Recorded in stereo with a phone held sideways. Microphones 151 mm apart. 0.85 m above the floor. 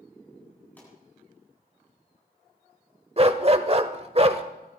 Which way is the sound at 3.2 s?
40° right (ahead or behind).